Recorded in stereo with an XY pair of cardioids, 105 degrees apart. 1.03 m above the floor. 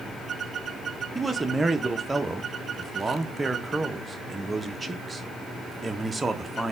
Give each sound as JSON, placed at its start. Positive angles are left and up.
{"t": 1.1, "sound": "a man speaking", "azimuth_deg": -20, "distance_m": 0.5}